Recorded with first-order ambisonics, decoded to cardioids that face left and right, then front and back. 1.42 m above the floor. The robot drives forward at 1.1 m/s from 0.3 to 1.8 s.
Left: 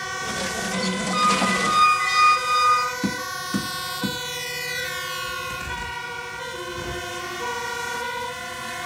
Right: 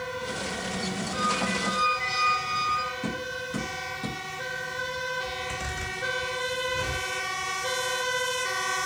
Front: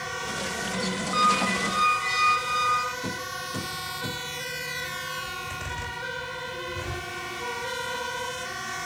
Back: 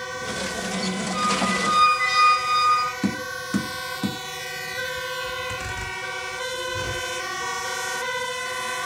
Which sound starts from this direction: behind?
A zipper, at 5.2 s.